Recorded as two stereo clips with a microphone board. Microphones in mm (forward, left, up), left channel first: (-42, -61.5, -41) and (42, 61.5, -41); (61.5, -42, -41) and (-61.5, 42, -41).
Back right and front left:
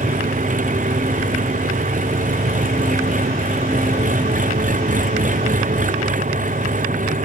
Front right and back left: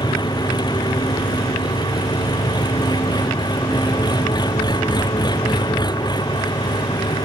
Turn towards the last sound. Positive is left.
turn(degrees=25)